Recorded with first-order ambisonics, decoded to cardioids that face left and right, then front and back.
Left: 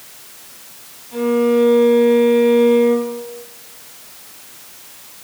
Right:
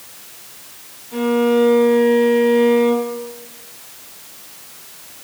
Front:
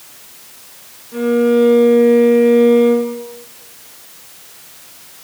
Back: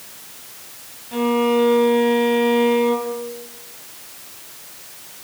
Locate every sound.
1.1 s a violin: straight behind, 3 m